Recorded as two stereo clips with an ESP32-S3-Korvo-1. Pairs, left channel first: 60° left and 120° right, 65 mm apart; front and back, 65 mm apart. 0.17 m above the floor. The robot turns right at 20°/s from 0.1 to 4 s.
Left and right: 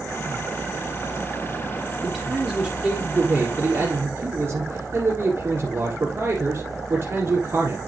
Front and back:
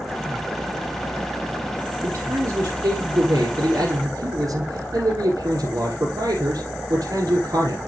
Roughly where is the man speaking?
Behind left.